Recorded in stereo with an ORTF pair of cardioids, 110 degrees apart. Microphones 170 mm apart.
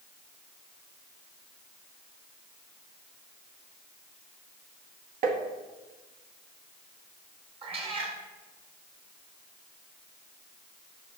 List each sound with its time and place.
5.2 s tapping: 55° right, 1.1 m
7.6 s a cat meowing: 35° right, 1.7 m